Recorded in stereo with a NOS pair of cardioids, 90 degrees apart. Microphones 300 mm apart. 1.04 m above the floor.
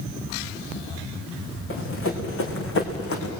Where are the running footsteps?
45° left, 5 m; by 3.3 s 55° left, 4 m.